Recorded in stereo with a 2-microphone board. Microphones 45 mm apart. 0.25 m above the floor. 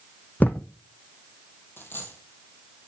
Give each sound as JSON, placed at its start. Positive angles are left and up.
{"t": 0.4, "sound": "a thud", "side_deg": 40, "distance_m": 0.6}
{"t": 1.8, "sound": "a dropped coin", "side_deg": 50, "distance_m": 1.6}